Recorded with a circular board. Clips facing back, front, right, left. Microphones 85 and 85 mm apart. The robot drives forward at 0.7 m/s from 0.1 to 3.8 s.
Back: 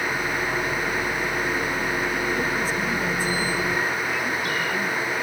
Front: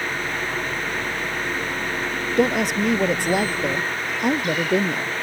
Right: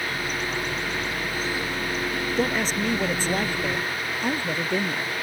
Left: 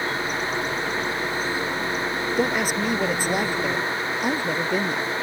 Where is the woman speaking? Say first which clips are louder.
Front 5 dB, left 2 dB; 10° left.